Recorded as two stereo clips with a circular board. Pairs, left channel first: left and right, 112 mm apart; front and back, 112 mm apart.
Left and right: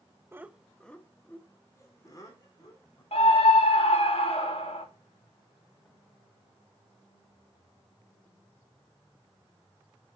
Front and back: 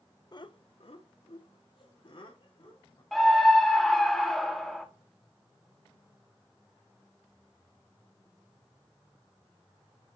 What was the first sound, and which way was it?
Laughter, 30° right.